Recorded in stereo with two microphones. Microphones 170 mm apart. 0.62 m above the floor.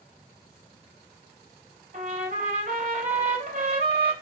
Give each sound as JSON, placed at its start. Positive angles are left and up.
{"t": 1.9, "sound": "a trumpet", "side_deg": -55, "distance_m": 2.5}